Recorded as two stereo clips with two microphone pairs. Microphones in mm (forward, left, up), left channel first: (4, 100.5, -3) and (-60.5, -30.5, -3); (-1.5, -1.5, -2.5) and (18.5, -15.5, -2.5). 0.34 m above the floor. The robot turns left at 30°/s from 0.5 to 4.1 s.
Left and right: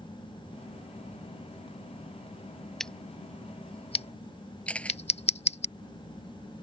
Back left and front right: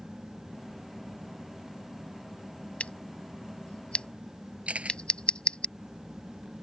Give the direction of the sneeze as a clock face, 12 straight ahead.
No sneeze in this recording.